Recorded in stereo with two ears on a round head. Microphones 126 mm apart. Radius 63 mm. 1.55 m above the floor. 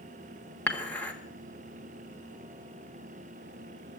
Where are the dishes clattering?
10° left (ahead or behind), 1.7 m.